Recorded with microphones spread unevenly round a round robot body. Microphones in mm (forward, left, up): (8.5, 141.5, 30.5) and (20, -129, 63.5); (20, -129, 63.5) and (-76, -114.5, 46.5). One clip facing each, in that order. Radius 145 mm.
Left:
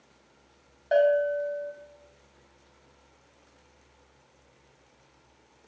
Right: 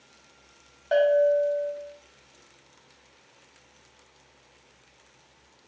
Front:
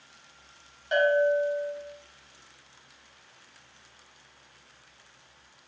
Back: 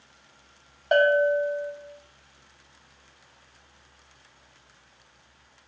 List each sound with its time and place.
0.9 s a bell: 165° right, 1.0 m